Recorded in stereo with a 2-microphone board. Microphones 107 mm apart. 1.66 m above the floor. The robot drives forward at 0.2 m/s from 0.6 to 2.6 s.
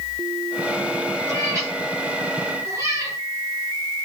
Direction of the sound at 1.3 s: 30° right (ahead or behind).